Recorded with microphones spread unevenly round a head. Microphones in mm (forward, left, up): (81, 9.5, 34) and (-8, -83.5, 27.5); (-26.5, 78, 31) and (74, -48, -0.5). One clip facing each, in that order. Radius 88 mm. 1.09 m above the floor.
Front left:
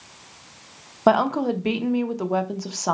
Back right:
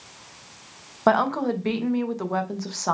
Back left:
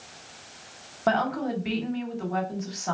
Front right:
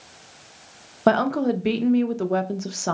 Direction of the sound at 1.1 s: 30° right.